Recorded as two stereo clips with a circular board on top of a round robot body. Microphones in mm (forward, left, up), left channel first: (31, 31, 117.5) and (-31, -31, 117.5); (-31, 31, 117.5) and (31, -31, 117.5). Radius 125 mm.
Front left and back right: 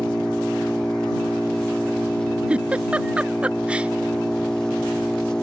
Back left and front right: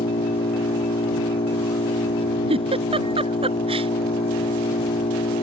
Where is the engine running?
130° left.